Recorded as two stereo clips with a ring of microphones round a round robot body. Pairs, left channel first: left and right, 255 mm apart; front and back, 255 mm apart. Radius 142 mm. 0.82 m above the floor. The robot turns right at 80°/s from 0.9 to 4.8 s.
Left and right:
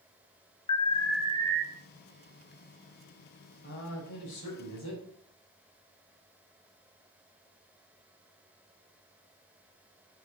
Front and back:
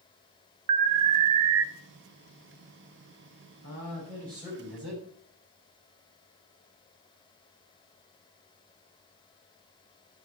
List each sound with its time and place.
0.7 s an alarm: 160° left, 0.6 m; by 1.6 s 140° right, 0.6 m
3.6 s a man speaking: 35° left, 4 m; by 5.0 s 130° left, 4 m